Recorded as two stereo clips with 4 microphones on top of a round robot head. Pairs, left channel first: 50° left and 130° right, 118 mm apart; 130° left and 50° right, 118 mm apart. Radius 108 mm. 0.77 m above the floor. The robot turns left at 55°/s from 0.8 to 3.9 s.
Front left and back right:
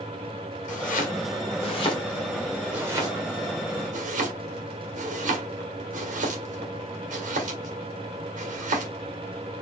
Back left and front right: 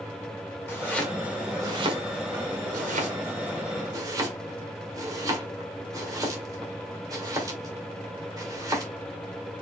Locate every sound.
0.7 s chopping: 60° left, 1.8 m; by 8.9 s 110° right, 1.8 m